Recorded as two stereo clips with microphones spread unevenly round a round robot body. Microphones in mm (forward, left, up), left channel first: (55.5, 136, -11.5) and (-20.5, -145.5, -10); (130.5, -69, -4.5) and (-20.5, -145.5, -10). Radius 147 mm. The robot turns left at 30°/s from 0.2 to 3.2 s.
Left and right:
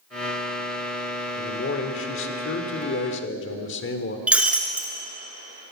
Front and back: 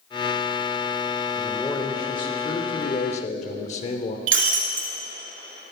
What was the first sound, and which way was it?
A man speaking, 110° left.